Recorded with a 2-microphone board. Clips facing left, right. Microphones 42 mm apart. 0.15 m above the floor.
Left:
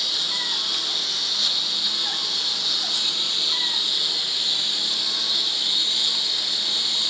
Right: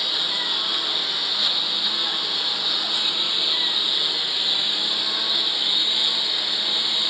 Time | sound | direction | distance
0.0 | a lawn mower | 15° right (ahead or behind) | ?